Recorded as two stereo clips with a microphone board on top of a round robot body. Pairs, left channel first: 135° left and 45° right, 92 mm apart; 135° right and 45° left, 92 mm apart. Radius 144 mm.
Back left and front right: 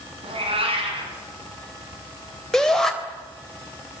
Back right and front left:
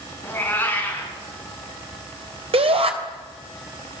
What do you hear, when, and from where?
0.2 s a cat meowing: 65° right, 4.5 m
2.5 s a shout: 50° left, 3.5 m